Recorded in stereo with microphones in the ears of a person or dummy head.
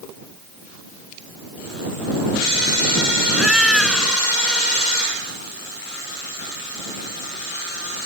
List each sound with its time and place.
3.3 s a cat meowing: centre (ahead or behind)